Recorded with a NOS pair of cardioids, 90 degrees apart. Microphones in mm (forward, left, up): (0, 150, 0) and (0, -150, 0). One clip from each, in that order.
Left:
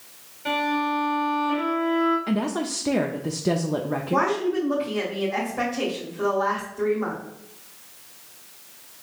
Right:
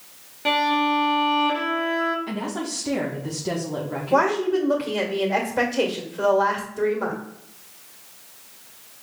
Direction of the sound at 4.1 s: 65° right.